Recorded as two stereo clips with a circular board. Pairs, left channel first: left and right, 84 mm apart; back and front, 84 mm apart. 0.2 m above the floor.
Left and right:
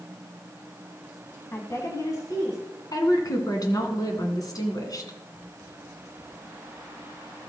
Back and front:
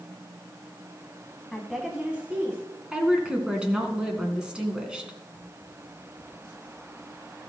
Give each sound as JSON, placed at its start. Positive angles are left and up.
{"t": 1.5, "sound": "a woman speaking", "azimuth_deg": 100, "distance_m": 1.1}
{"t": 2.9, "sound": "a woman speaking", "azimuth_deg": 75, "distance_m": 1.9}